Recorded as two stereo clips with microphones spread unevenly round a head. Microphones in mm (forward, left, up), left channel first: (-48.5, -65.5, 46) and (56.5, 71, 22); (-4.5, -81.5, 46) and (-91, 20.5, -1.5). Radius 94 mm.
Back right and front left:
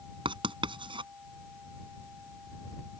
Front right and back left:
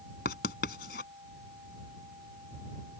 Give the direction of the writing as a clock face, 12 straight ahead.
12 o'clock.